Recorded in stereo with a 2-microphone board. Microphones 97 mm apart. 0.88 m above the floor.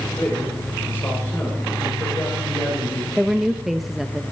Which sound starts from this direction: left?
A man speaking, at 0.2 s.